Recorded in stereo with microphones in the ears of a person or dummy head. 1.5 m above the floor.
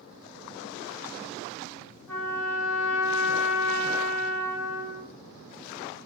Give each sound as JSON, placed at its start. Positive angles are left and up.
{"t": 2.1, "sound": "a trumpet", "side_deg": 15, "distance_m": 0.7}